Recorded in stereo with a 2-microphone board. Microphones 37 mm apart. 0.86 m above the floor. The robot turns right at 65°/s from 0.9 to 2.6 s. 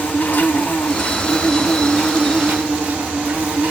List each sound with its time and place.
0.0 s an insect: 120° left, 2.0 m; by 3.7 s 130° right, 2.0 m